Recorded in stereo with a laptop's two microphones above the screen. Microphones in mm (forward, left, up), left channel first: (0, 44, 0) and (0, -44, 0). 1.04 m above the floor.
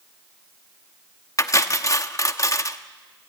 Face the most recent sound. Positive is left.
turn(degrees=35)  # may be behind; listen again after turning